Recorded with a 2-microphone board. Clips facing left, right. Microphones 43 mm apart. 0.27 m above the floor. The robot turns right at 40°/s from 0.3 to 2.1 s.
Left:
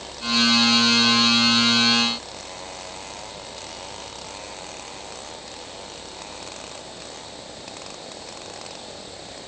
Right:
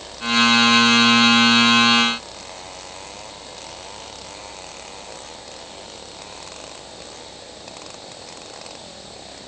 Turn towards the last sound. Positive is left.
No sound to turn to.